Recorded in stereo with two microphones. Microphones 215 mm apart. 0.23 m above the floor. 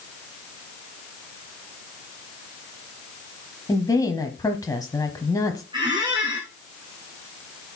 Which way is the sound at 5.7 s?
20° right (ahead or behind).